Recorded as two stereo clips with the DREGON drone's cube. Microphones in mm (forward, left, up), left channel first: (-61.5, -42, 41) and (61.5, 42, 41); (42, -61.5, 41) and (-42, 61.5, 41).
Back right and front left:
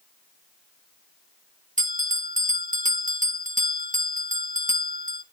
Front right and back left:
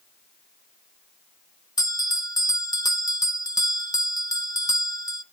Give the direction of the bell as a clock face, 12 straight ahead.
12 o'clock.